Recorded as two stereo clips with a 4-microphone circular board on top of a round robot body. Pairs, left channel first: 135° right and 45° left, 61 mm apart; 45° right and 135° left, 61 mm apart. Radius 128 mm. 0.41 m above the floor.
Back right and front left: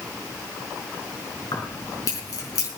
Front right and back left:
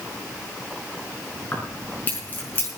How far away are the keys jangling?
About 5 m.